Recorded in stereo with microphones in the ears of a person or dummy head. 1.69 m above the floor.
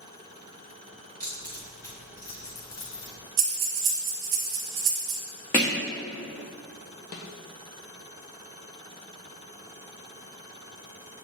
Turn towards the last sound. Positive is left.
turn(degrees=40)  # may be behind; listen again after turning